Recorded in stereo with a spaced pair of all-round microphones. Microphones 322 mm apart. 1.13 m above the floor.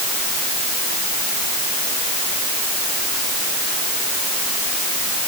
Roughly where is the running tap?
No running tap in this recording.